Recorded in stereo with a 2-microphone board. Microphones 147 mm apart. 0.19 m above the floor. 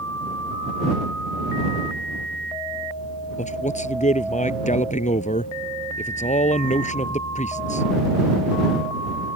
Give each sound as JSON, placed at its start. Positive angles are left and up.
{"t": 3.4, "sound": "a man speaking", "side_deg": 55}